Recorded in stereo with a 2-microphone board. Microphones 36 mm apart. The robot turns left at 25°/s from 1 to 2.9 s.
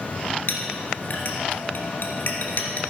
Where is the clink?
60° left (ahead or behind), 2.0 m; by 2.8 s 55° left (ahead or behind), 2.0 m.